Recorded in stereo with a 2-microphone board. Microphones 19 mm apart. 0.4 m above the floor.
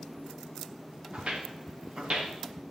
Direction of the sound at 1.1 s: 75° right (ahead or behind).